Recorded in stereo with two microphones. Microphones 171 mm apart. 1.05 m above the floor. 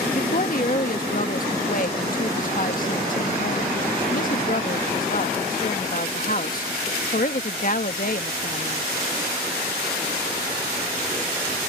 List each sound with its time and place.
0.1 s a woman speaking: 55° left (ahead or behind)